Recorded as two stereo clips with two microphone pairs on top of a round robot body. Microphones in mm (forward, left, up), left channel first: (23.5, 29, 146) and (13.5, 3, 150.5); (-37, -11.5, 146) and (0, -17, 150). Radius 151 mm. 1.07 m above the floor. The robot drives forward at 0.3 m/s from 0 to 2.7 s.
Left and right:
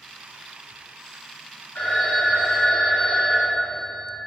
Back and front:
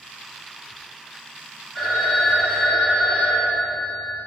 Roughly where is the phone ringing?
Left.